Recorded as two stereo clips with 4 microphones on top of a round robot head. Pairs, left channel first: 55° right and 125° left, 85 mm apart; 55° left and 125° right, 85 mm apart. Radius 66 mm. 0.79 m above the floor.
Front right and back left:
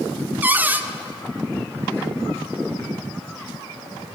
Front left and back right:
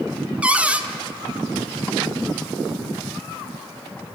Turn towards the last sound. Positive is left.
turn(degrees=175)